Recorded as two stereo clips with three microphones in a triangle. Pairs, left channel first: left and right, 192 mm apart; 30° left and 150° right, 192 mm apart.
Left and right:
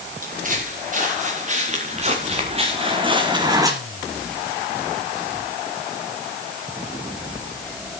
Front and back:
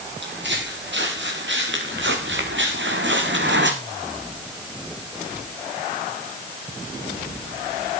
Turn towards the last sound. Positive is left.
turn(degrees=-165)